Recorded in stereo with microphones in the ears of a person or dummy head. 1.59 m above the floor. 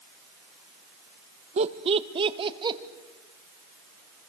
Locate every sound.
1.6 s laughter: 40° right (ahead or behind), 1.3 m; by 2.8 s 30° right (ahead or behind), 2.0 m